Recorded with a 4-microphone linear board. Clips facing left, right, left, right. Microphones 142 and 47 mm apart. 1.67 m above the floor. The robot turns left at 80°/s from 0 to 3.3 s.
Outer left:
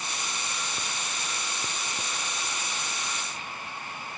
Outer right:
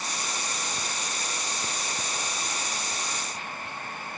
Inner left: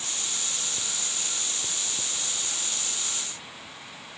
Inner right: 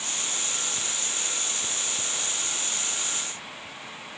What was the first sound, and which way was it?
Only background noise.